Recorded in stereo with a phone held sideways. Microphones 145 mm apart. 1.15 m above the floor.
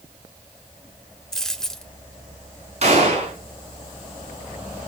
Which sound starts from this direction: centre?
A dropped coin, at 1.3 s.